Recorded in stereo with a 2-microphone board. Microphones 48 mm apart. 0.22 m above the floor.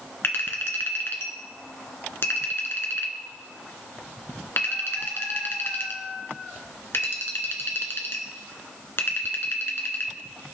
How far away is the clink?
About 1.8 m.